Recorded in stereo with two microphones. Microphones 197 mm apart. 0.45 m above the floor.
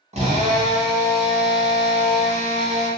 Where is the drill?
35° right (ahead or behind), 1.1 m.